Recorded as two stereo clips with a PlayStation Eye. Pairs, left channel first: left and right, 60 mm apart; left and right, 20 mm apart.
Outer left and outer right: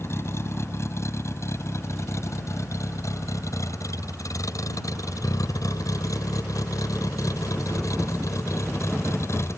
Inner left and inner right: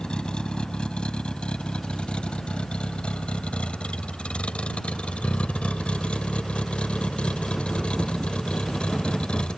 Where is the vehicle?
45° left (ahead or behind); by 9.6 s 55° left (ahead or behind).